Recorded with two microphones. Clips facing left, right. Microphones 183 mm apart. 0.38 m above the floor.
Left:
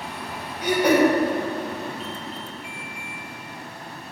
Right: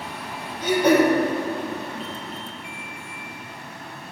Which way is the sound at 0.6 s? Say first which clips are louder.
Right 1 dB; 10° left (ahead or behind).